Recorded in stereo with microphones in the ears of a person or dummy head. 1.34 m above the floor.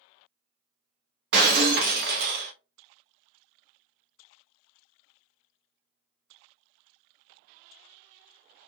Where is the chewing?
No chewing in this recording.